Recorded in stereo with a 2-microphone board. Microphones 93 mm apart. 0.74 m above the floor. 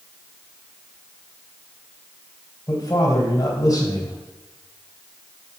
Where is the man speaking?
35° left (ahead or behind), 2.5 m.